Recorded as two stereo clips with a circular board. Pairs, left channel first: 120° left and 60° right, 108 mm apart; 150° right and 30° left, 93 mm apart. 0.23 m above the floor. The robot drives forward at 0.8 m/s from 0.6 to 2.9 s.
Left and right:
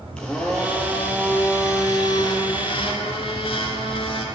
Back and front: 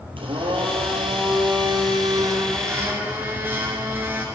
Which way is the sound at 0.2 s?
40° left.